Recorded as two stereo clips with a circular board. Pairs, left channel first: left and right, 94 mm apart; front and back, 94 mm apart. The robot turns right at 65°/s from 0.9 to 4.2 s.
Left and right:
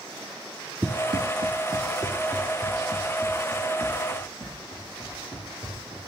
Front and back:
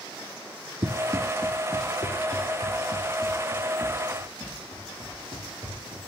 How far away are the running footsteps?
About 0.8 m.